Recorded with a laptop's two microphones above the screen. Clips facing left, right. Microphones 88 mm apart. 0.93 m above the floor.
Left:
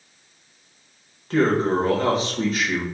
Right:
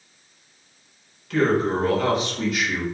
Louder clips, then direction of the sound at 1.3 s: Left 1 dB; 40° left (ahead or behind).